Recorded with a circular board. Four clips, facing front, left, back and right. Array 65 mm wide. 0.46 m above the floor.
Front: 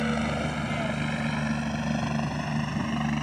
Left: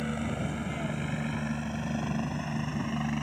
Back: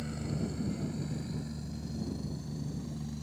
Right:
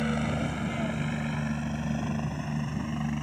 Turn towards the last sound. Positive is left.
turn(degrees=10)